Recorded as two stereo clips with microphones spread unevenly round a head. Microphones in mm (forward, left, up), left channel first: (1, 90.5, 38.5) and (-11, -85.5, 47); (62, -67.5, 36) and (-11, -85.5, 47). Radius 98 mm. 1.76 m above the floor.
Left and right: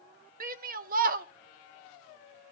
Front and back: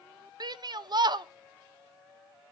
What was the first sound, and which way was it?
A shout, 140° right.